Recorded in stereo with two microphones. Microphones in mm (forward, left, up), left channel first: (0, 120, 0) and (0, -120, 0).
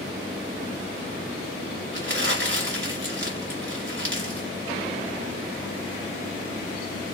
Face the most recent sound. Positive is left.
turn(degrees=-50)  # may be behind; listen again after turning